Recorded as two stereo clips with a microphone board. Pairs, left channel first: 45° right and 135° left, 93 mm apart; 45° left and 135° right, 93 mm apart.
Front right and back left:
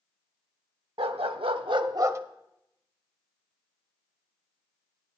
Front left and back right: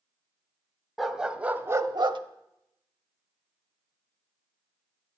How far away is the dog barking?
About 0.7 m.